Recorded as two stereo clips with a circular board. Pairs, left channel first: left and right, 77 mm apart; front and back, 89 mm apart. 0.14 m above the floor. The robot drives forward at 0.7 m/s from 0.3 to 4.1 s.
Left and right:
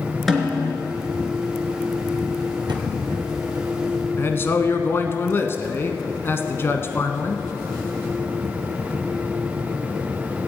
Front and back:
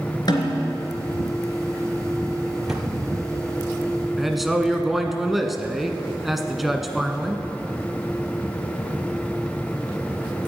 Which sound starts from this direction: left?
A man speaking, at 4.2 s.